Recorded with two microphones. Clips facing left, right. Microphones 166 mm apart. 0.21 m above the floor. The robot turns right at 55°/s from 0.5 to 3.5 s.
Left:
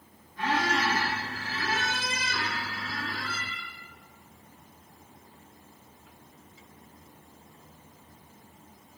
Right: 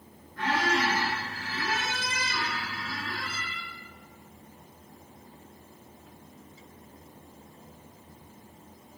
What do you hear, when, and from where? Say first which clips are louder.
0.4 s a squeak: even; 170° left, 1.7 m; by 3.7 s 25° right, 1.7 m